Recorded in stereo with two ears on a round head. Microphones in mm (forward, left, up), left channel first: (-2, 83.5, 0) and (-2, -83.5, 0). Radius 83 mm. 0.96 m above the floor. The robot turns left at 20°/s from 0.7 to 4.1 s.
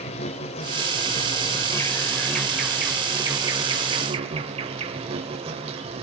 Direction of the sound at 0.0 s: 35° left.